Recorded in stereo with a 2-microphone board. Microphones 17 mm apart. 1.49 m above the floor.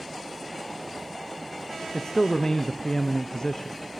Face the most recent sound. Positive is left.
turn(degrees=40)  # may be behind; listen again after turning